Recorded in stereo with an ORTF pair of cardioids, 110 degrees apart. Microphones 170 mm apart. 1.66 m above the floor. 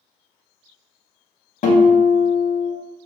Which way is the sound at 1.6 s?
45° left.